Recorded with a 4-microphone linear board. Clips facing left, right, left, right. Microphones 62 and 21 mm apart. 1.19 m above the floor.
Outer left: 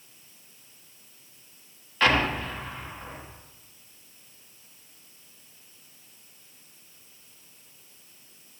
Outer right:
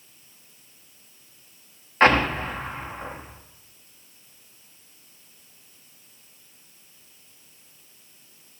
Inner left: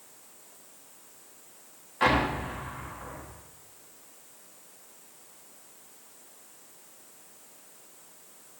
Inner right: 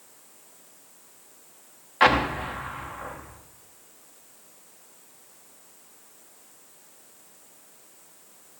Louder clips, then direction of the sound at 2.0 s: Outer right 5 dB, inner right 5 dB; 40° right (ahead or behind).